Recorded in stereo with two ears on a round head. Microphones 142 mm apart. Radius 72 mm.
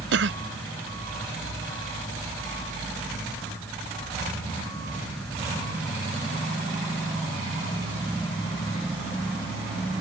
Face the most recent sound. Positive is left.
turn(degrees=-85)